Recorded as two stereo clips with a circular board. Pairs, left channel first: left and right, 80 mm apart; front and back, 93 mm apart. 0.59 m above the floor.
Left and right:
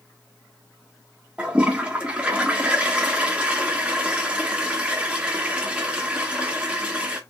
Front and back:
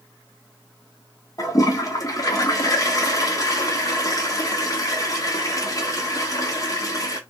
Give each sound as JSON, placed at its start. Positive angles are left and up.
{"t": 1.4, "sound": "a toilet flushing", "azimuth_deg": -20, "distance_m": 1.4}